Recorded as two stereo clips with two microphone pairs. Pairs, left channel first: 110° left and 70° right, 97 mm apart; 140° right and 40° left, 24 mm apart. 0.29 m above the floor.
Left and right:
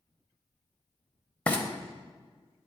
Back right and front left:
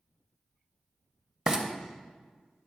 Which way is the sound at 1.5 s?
70° left.